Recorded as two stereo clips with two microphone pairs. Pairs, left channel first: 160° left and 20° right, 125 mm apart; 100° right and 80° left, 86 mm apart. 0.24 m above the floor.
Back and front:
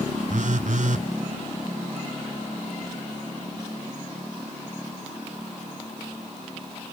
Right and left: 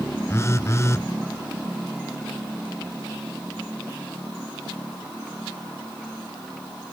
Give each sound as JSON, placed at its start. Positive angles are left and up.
{"t": 0.3, "sound": "a phone buzzing", "azimuth_deg": -40, "distance_m": 0.8}